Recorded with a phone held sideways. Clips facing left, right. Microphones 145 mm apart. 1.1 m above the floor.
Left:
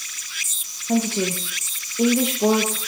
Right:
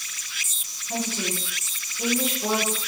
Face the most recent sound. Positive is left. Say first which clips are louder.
# left 8 dB
turn(degrees=70)  # may be behind; listen again after turning